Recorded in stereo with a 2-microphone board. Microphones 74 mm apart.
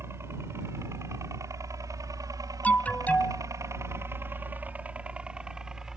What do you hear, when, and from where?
0.0 s a helicopter: 35° right (ahead or behind); by 6.0 s 5° right (ahead or behind)
2.6 s an alarm: 20° left (ahead or behind)